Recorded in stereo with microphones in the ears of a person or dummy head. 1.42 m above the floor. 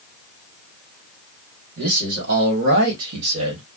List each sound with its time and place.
1.8 s a man speaking: 50° right (ahead or behind), 1.6 m; by 3.6 s 70° right (ahead or behind), 1.1 m